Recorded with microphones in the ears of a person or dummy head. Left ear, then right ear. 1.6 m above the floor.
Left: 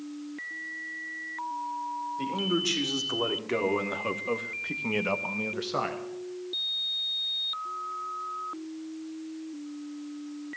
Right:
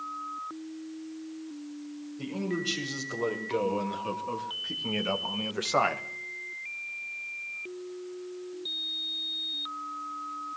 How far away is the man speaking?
About 5.5 m.